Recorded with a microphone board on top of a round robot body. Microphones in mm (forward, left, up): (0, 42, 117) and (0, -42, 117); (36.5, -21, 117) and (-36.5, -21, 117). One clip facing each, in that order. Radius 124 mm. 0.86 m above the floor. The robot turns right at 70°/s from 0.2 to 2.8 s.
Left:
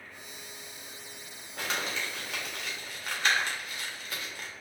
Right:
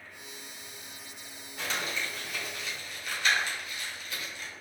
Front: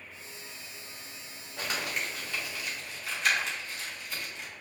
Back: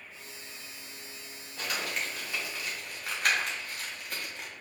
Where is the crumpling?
50° left, 1.5 m; by 4.5 s 140° left, 1.5 m.